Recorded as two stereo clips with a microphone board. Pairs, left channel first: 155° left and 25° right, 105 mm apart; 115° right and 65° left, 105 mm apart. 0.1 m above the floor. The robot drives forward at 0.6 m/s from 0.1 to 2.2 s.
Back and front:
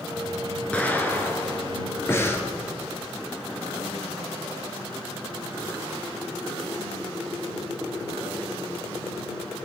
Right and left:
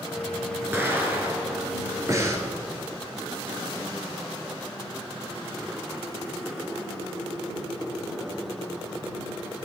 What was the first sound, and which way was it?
An explosion, 95° left.